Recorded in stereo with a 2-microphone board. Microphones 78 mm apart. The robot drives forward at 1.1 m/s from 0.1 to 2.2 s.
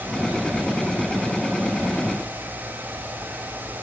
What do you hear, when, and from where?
Only background noise.